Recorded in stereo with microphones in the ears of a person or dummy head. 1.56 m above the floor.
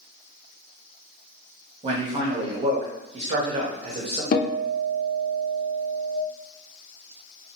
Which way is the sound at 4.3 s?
45° left (ahead or behind).